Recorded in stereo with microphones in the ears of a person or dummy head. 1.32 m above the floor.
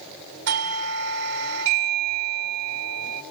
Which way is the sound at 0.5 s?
65° right (ahead or behind).